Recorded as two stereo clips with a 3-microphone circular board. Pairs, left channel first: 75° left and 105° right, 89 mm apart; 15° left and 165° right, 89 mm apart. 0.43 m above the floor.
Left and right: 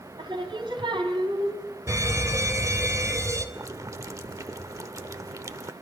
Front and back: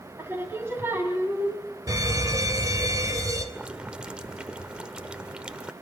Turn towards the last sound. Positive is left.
turn(degrees=-90)